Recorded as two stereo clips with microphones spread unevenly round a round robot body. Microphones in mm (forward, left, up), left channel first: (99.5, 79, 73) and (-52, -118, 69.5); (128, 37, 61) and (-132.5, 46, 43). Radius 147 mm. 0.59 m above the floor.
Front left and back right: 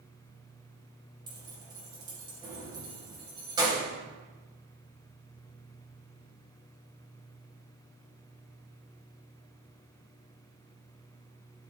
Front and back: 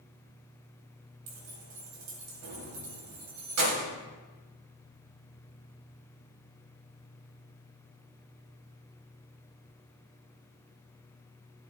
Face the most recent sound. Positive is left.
turn(degrees=160)